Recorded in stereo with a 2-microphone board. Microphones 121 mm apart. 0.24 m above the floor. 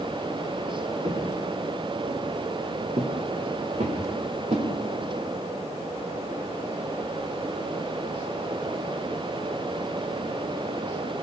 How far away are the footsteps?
About 5 m.